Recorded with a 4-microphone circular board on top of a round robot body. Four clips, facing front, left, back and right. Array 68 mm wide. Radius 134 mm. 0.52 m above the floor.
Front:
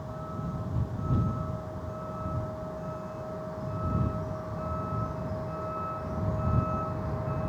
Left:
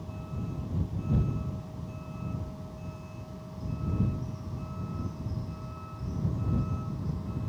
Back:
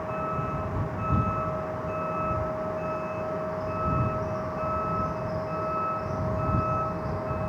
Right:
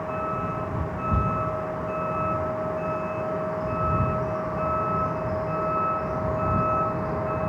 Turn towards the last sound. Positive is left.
turn(degrees=-105)